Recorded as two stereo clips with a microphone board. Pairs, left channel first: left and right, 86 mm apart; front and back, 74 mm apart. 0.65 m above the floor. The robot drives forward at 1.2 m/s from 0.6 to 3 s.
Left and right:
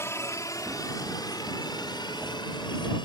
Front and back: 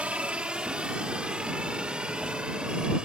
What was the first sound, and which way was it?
A helicopter, 120° left.